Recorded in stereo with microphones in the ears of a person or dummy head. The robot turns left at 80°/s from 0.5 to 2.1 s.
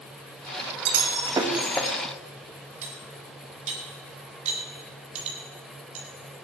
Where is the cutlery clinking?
35° right (ahead or behind), 3 m.